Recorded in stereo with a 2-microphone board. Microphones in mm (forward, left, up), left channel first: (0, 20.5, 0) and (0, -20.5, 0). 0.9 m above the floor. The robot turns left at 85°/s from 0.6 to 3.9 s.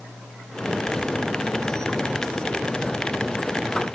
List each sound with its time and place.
Only background noise.